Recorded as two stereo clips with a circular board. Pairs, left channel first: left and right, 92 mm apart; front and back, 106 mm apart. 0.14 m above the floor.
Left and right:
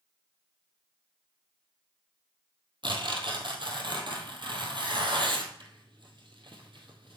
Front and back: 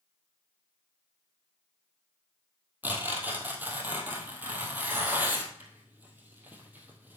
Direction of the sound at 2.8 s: 110° right.